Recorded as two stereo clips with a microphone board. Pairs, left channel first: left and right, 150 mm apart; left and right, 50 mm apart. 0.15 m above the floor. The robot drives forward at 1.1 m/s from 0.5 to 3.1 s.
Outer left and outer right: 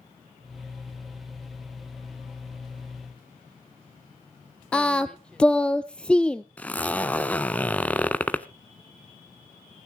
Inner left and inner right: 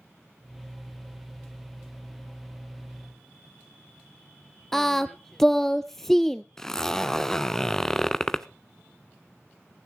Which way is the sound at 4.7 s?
5° left (ahead or behind).